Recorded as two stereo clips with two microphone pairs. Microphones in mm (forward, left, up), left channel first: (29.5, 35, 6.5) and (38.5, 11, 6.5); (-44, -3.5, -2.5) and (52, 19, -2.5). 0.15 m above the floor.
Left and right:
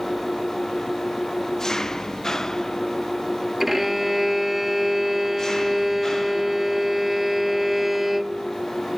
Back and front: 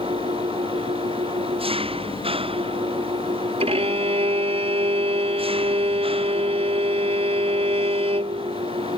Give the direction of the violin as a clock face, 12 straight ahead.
12 o'clock.